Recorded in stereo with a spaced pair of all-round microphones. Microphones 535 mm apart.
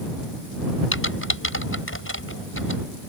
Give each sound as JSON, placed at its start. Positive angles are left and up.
{"t": 0.9, "sound": "typing on a keyboard", "side_deg": 25}